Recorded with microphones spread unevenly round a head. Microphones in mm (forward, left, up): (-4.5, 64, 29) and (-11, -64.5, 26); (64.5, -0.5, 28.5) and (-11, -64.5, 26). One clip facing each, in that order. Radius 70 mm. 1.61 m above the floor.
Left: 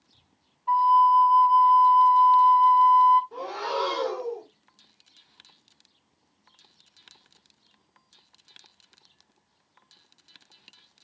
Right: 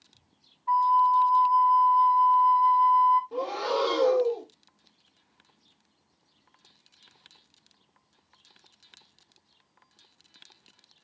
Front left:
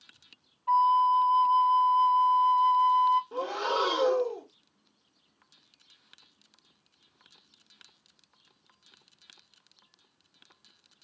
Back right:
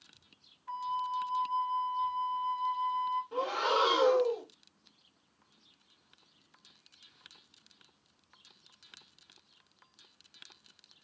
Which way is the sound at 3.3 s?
25° right.